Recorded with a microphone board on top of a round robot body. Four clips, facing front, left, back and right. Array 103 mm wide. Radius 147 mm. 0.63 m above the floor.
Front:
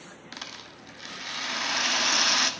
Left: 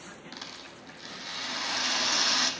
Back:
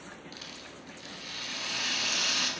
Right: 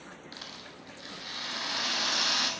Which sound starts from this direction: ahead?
A rattle, at 0.3 s.